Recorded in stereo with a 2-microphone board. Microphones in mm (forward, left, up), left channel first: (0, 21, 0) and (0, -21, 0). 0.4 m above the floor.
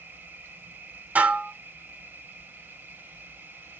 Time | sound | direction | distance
0.0 | an insect | 60° right (ahead or behind) | 1.4 m
1.1 | dishes clattering | 40° right (ahead or behind) | 1.1 m